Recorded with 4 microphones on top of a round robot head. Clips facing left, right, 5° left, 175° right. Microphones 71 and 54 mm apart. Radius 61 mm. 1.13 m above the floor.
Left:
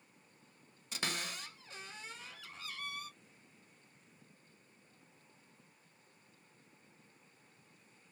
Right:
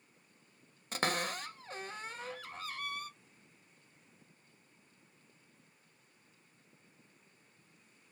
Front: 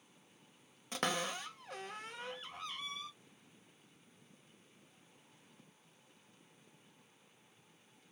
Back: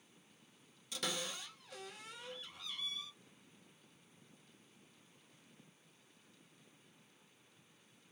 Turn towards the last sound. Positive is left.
turn(degrees=-45)